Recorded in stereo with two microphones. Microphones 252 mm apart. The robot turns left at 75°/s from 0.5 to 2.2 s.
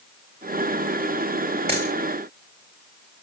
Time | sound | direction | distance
1.7 | a dropped coin | 25° right (ahead or behind) | 6 m